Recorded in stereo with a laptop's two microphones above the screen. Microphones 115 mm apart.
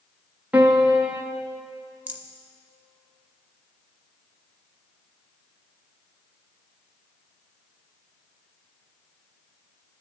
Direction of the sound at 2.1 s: 15° right (ahead or behind).